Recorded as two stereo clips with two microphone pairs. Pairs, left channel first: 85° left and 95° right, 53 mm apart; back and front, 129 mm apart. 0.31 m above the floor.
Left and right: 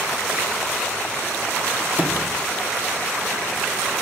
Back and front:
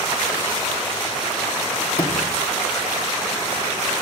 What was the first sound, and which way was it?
A sliding door, 150° right.